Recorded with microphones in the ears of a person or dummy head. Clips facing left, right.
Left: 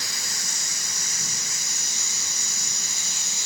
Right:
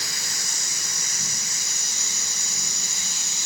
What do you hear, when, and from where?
Only background noise.